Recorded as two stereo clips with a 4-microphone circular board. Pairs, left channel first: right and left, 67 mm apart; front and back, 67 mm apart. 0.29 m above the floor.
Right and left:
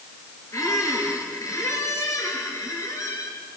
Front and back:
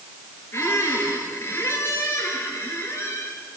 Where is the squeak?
50° right, 3.5 m.